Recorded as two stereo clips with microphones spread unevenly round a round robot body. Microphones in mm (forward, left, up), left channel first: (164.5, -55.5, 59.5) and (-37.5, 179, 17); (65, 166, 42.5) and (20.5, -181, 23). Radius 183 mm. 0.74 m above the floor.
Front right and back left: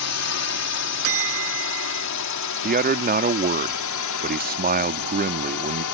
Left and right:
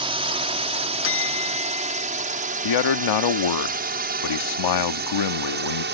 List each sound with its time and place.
0.0 s a drone: 30° right; by 6.0 s 45° right
1.0 s a bell: 130° left
2.6 s a man speaking: 75° left